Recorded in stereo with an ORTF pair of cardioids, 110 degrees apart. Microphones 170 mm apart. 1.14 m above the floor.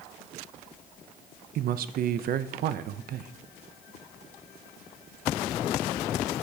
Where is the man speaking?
60° right, 0.6 m.